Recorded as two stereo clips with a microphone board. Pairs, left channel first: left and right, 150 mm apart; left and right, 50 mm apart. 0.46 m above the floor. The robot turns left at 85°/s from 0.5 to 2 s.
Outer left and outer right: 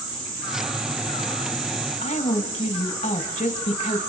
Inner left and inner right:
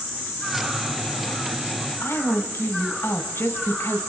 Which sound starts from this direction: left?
A woman speaking, at 2.0 s.